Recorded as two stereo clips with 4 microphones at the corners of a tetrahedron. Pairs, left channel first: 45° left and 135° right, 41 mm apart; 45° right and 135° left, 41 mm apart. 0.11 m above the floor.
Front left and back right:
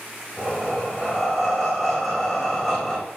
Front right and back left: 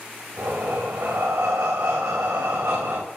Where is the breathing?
135° left, 3 m.